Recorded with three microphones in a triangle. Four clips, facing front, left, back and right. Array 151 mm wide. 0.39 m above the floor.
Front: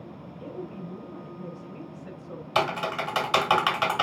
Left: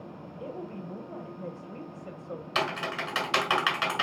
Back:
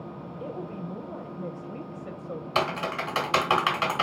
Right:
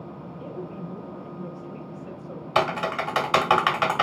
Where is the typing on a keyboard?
85° right, 1.6 m.